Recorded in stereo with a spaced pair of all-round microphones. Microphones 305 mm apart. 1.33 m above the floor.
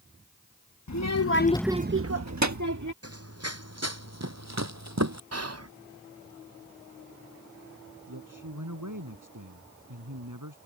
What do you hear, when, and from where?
0.9 s a child speaking: 65° left (ahead or behind); by 2.9 s 75° right (ahead or behind)
3.0 s running footsteps: 50° right (ahead or behind); by 5.2 s 60° right (ahead or behind)
5.3 s whispering: 55° right (ahead or behind)
8.1 s a man speaking: 80° right